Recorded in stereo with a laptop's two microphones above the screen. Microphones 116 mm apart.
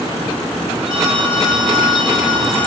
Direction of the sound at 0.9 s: 45° right (ahead or behind).